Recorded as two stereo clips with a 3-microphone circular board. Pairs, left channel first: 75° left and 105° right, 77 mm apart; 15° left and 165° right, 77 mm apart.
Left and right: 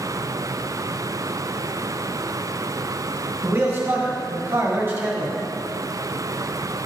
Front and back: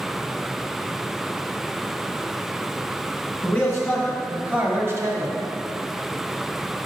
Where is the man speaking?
50° right, 2.5 m; by 5.4 s 165° right, 2.0 m.